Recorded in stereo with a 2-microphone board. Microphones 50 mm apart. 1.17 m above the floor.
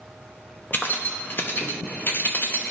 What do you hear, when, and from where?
0.7 s keys jangling: 45° left (ahead or behind), 0.6 m